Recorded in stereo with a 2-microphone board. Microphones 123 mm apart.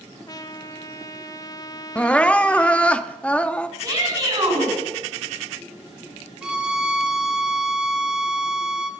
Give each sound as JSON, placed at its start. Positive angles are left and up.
{"t": 0.3, "sound": "a trumpet", "side_deg": 30, "distance_m": 0.8}
{"t": 1.9, "sound": "crying", "side_deg": 10, "distance_m": 0.6}
{"t": 3.8, "sound": "a shout", "side_deg": -30, "distance_m": 5.5}
{"t": 6.4, "sound": "a violin", "side_deg": -5, "distance_m": 2.0}